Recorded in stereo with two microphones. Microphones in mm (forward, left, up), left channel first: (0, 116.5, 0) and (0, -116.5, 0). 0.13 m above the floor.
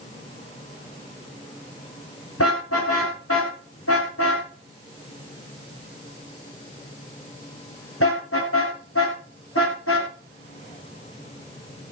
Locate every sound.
2.4 s a car horn: 80° left, 7 m; by 10.1 s 65° left (ahead or behind), 11 m